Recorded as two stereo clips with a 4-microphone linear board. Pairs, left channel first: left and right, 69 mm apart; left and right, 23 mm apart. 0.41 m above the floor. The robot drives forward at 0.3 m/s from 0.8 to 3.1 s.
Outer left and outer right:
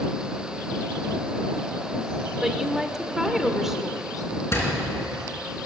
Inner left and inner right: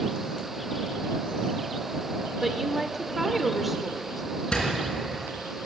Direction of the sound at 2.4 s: 5° right (ahead or behind).